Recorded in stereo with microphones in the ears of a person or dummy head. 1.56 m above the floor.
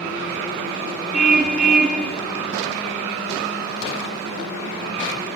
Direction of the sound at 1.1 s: Centre (ahead or behind).